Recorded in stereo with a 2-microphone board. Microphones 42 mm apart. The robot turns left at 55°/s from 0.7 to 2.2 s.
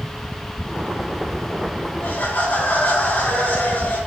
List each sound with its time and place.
2.0 s laughter: 70° left (ahead or behind), 4.5 m; by 4.0 s 60° left (ahead or behind), 4.5 m